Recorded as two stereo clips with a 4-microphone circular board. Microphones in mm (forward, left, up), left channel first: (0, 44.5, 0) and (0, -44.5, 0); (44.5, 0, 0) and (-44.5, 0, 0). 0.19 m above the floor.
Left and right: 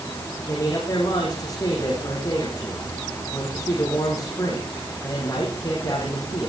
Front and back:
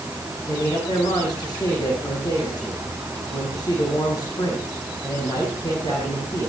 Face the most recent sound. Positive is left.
turn(degrees=45)